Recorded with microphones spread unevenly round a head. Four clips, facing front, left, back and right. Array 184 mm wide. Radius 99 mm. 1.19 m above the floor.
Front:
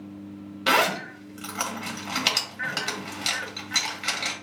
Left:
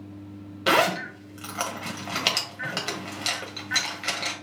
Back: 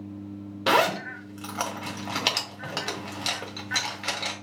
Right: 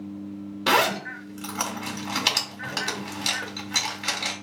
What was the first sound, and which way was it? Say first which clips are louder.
A zipper: even, back 1 dB; 175° left.